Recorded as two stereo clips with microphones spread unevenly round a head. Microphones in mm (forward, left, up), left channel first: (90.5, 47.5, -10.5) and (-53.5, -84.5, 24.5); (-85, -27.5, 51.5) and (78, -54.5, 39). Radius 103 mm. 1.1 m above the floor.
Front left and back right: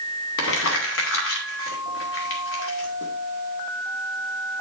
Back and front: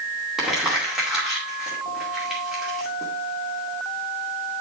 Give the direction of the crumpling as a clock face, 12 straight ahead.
9 o'clock.